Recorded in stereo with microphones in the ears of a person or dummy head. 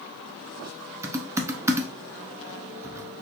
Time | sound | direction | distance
1.0 | typing on a keyboard | 10° right (ahead or behind) | 0.6 m